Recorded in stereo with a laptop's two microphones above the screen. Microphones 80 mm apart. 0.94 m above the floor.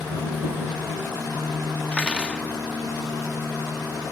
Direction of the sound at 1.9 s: 15° left (ahead or behind).